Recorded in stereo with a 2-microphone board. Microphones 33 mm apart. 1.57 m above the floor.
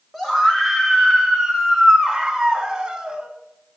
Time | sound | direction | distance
0.1 | a scream | 10° left (ahead or behind) | 3.5 m